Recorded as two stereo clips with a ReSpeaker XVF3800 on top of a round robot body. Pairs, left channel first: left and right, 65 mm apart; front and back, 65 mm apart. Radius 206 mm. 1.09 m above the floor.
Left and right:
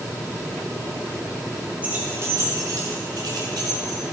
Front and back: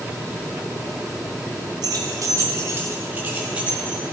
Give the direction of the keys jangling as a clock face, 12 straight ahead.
5 o'clock.